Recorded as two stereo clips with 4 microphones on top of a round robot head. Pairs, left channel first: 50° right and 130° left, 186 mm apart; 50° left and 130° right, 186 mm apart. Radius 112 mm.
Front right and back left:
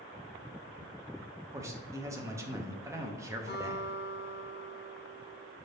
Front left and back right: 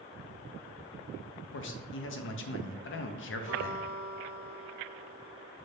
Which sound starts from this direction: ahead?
A guitar, at 3.5 s.